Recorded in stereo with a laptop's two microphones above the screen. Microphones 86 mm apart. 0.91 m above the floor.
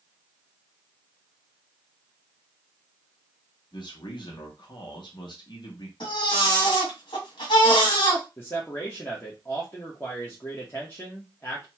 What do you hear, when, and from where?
3.7 s a man speaking: 60° left (ahead or behind), 0.8 m
6.0 s a baby crying: 65° left (ahead or behind), 1.8 m
8.4 s a man speaking: 30° left (ahead or behind), 0.9 m